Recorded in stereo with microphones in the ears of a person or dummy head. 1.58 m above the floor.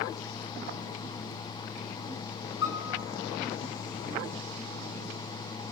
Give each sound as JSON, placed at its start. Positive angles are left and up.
{"t": 2.6, "sound": "a piano", "side_deg": 75, "distance_m": 6.5}